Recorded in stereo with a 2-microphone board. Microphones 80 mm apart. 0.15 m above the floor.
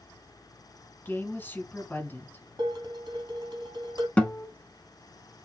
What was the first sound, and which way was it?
A woman speaking, 25° left (ahead or behind).